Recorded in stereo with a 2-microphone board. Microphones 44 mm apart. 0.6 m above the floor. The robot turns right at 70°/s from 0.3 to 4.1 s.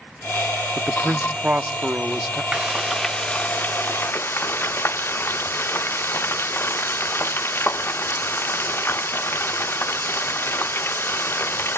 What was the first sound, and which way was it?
A man speaking, 140° right.